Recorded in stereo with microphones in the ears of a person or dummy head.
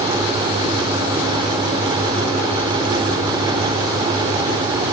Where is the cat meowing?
No cat meowing in this recording.